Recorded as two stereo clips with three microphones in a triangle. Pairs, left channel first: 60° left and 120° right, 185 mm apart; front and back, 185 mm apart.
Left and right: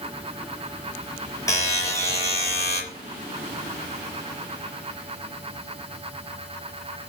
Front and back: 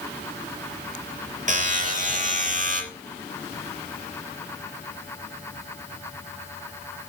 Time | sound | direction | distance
1.5 | a buzzer | 130° left | 6 m